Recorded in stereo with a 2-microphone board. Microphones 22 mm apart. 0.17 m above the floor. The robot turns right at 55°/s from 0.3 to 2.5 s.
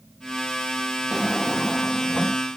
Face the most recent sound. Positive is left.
turn(degrees=55)